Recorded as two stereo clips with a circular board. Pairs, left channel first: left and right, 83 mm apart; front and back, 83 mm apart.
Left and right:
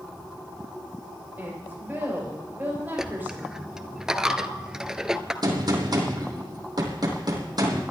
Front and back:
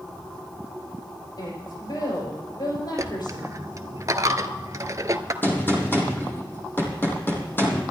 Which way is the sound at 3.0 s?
170° right.